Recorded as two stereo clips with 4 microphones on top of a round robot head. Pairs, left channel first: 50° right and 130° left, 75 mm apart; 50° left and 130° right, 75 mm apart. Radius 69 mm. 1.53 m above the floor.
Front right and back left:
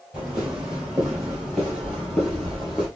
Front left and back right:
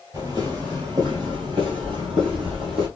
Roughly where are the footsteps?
Behind right.